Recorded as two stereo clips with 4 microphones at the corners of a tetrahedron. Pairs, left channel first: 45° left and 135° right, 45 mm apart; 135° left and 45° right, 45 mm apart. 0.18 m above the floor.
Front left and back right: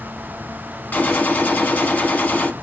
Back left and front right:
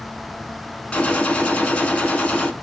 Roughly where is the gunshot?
Left.